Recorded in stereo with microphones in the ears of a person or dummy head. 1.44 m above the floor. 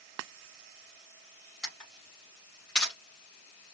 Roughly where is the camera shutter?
Centre.